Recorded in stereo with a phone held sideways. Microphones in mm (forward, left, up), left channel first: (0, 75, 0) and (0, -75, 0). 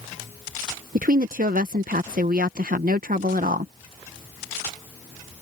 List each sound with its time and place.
0.9 s a woman speaking: 70° right (ahead or behind)